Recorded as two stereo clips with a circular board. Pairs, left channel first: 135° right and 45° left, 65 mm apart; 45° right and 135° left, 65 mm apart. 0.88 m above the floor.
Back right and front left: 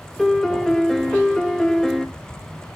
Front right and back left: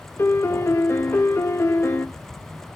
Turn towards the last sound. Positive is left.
turn(degrees=-50)